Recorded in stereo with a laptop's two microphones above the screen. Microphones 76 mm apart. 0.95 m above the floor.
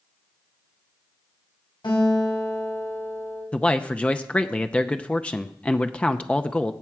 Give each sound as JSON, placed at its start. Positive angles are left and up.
{"t": 1.8, "sound": "a guitar", "side_deg": 80, "distance_m": 6.0}
{"t": 3.5, "sound": "a man speaking", "side_deg": 15, "distance_m": 0.7}